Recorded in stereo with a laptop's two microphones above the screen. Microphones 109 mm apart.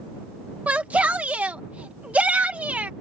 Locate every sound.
0.7 s a shout: 15° right (ahead or behind)